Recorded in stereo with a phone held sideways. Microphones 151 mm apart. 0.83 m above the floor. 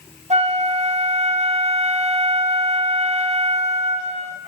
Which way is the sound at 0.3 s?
50° right (ahead or behind).